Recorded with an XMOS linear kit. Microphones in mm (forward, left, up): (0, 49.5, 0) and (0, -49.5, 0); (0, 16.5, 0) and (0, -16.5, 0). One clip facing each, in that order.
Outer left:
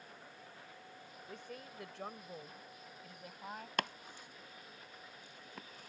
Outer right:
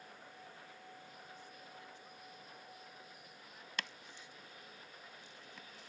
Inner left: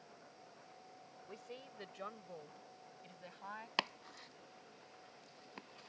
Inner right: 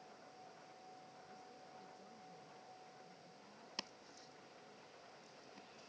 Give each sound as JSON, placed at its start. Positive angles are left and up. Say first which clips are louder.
{"t": 1.3, "sound": "a woman speaking", "louder": "outer left 5 dB, inner left 5 dB", "side_deg": 80}
{"t": 3.8, "sound": "chopping", "louder": "outer left 6 dB, inner left 12 dB", "side_deg": 50}